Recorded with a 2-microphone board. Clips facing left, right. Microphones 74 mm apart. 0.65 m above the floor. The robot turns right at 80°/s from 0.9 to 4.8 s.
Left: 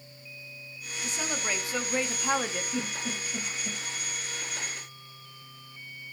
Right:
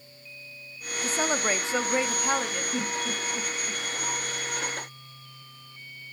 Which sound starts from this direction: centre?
A giggle, at 2.7 s.